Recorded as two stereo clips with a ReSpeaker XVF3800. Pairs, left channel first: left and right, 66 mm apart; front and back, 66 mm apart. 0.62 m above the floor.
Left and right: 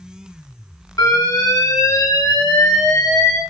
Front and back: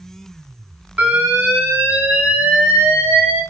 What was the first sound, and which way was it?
An alarm, 115° left.